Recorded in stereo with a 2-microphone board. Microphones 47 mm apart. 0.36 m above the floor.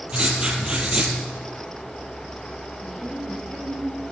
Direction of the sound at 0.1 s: 20° right (ahead or behind).